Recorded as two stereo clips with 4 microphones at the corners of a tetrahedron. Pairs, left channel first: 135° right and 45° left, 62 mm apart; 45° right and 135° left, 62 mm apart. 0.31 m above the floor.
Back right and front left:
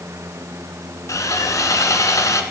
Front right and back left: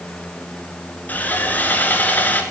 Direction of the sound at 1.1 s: 105° right.